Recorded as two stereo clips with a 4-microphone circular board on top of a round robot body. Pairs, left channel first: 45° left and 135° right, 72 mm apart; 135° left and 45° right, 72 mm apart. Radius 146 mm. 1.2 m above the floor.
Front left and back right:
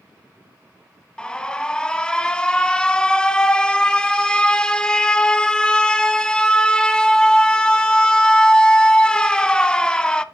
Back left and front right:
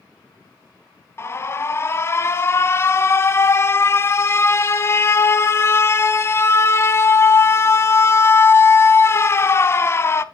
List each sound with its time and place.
1.2 s an alarm: 115° left, 1.5 m